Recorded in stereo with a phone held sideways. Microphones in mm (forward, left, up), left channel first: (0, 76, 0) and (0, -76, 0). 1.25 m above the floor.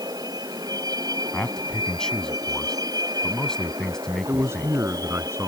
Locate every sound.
0.0 s a vehicle: 25° right (ahead or behind)
1.3 s a man speaking: 5° left (ahead or behind)
4.3 s a man speaking: 15° right (ahead or behind)